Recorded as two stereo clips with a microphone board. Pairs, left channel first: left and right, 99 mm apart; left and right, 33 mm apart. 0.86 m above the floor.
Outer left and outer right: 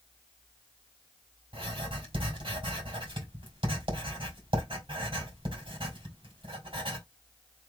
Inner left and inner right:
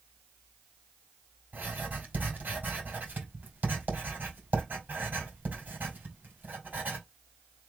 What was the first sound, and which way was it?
Writing, 60° right (ahead or behind).